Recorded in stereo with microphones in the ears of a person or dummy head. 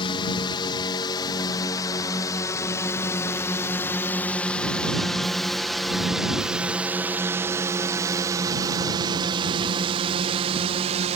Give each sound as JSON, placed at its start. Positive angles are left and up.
{"t": 0.0, "sound": "a drone", "side_deg": 35}